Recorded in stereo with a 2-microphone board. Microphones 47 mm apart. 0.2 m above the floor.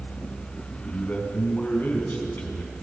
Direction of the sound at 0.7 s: 40° left (ahead or behind).